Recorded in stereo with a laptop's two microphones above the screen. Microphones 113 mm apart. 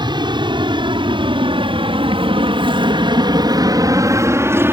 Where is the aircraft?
45° right (ahead or behind); by 4.7 s 20° right (ahead or behind).